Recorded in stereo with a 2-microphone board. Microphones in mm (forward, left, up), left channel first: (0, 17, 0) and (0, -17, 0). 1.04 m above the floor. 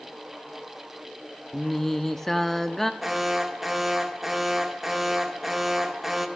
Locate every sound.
1.5 s singing: 10° left (ahead or behind), 0.6 m
3.0 s an alarm: 5° right (ahead or behind), 0.8 m